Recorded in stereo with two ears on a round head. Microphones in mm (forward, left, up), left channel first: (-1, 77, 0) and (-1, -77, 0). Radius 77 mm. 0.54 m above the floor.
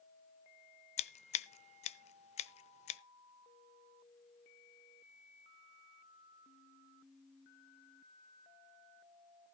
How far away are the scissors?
About 0.6 m.